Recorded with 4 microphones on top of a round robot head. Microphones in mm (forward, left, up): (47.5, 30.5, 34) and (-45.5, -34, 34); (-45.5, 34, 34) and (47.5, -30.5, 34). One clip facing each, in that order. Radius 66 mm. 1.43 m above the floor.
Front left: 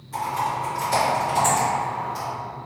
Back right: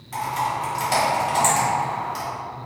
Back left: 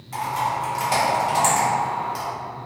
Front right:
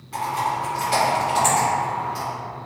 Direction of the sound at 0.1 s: 175° right.